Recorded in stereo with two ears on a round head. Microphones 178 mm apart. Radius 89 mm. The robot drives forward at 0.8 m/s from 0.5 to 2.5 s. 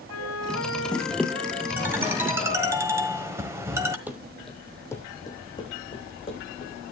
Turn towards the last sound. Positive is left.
turn(degrees=30)  # may be behind; listen again after turning